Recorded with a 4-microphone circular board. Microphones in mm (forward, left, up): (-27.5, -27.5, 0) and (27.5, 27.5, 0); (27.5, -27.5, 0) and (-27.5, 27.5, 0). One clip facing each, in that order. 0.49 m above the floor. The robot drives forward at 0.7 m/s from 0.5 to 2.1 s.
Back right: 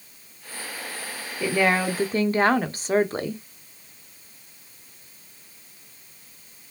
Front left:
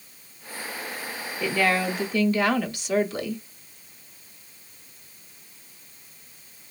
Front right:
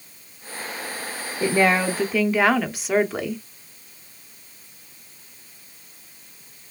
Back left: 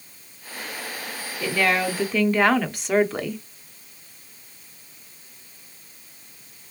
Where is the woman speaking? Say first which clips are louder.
Back right 2 dB, front right 3 dB; 65° right, 0.7 m; by 3.4 s 135° right, 0.8 m.